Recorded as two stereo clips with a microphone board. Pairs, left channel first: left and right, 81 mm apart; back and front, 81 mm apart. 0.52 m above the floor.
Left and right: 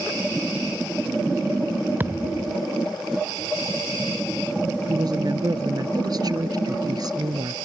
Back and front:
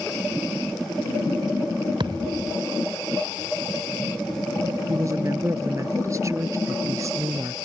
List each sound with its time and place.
2.0 s a thud: 25° right
4.9 s a woman speaking: 50° right